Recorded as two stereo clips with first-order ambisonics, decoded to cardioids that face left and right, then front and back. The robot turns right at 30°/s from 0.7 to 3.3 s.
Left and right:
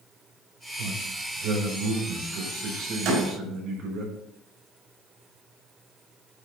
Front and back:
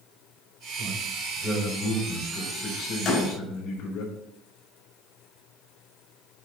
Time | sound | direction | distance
0.8 | a man speaking | 100° right | 4.5 m
3.0 | a door slam | 50° right | 4 m